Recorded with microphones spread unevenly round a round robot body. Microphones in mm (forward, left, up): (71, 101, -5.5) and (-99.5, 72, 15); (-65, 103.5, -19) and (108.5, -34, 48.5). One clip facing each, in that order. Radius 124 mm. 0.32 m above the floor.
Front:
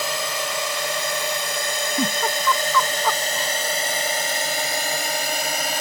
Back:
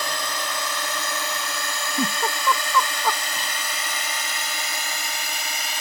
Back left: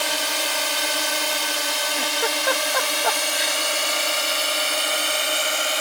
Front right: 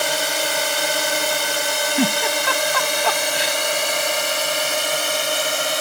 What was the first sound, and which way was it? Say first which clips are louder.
A drone: front 3 dB, front right 5 dB; 50° right.